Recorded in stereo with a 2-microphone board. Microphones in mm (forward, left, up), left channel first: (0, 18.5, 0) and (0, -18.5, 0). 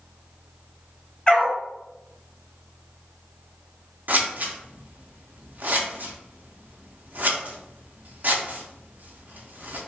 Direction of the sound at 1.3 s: 25° left (ahead or behind).